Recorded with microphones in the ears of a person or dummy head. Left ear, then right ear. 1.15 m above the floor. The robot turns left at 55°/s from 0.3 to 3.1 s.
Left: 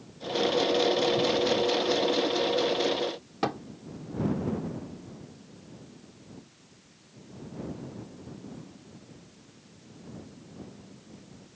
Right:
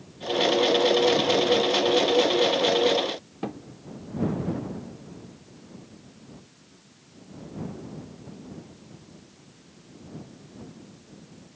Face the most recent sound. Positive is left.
turn(degrees=55)  # may be behind; listen again after turning